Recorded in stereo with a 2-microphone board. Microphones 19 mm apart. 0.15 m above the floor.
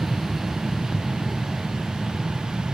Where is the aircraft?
Centre (ahead or behind); by 2.8 s 5° right (ahead or behind).